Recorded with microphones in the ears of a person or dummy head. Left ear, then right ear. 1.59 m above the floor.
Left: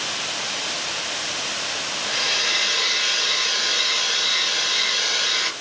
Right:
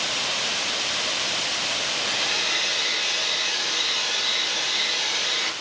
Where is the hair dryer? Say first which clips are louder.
Left 5 dB; 35° left (ahead or behind), 0.6 m.